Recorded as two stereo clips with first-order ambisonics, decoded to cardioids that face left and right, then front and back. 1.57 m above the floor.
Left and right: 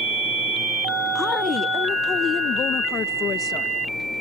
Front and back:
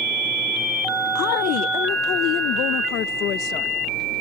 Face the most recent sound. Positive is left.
turn(degrees=35)